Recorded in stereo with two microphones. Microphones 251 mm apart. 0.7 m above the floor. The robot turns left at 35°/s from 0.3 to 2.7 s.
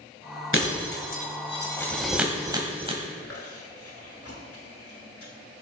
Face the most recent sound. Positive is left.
turn(degrees=65)  # may be behind; listen again after turning